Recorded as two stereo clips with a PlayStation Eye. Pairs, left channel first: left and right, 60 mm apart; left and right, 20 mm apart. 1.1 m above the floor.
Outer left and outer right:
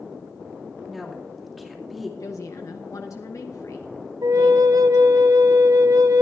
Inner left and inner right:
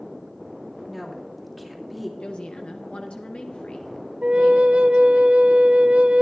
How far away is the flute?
About 0.6 m.